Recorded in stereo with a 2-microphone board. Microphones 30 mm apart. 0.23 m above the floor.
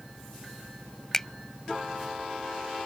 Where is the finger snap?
15° left (ahead or behind).